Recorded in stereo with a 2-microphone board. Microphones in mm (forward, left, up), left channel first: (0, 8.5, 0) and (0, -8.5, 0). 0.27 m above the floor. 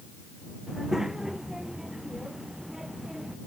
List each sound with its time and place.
0.7 s a child speaking: 25° right (ahead or behind)